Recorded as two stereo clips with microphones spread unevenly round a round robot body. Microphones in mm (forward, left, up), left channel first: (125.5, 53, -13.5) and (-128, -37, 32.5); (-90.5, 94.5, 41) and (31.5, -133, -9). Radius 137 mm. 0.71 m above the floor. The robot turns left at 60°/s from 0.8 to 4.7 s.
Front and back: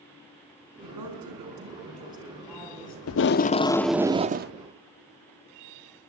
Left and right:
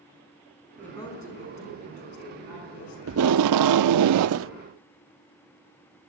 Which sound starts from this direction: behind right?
A woman speaking, at 0.8 s.